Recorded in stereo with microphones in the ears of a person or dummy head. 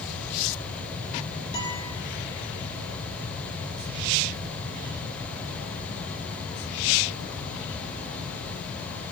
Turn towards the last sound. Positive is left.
turn(degrees=25)  # may be behind; listen again after turning